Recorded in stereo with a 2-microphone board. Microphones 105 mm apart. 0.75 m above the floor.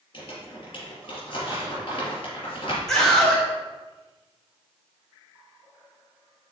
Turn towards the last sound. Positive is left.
turn(degrees=5)  # may be behind; listen again after turning